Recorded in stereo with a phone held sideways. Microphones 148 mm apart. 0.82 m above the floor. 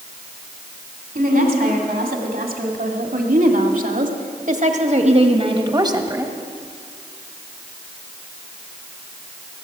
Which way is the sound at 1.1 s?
75° right (ahead or behind).